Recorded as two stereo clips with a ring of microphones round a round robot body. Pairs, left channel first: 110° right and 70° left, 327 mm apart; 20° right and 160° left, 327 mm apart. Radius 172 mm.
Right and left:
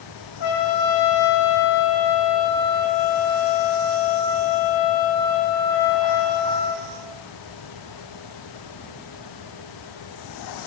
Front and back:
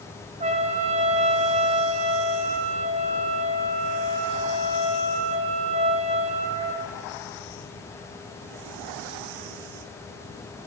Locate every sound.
0.4 s a trumpet: 135° right, 0.7 m